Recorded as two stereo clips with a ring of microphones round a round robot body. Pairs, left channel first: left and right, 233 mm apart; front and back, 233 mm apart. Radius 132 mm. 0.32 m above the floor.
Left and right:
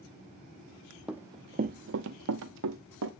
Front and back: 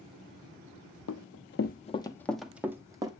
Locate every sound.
1.1 s running footsteps: 5° right, 0.7 m; by 3.1 s 105° right, 1.2 m